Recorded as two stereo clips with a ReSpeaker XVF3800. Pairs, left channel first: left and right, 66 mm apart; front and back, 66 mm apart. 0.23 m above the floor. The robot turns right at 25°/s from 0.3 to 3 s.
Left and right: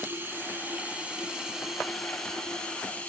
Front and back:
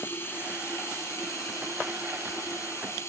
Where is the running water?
40° right, 1.8 m; by 3.1 s 25° left, 1.8 m.